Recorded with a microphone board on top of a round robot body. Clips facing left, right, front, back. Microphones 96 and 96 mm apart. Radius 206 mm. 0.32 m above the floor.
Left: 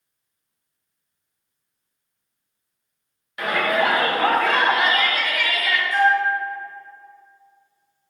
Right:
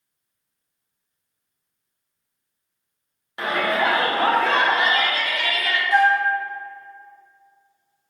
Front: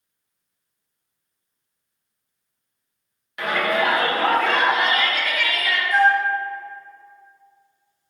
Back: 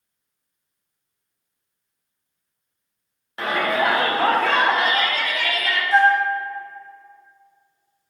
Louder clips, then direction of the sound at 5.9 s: Right 1 dB, back 1 dB; 120° right.